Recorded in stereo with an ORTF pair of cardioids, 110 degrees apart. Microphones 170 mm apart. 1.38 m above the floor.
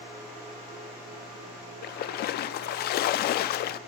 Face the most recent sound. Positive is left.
turn(degrees=60)